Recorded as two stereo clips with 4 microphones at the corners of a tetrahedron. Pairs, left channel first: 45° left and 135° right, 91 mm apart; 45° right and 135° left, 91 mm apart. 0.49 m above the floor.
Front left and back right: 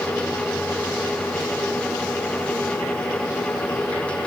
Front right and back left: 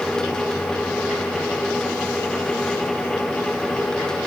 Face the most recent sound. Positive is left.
No sound to turn to.